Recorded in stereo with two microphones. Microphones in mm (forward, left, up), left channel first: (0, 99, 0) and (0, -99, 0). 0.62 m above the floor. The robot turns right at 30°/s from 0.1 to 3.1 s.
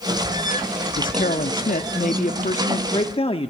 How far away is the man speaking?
About 0.9 m.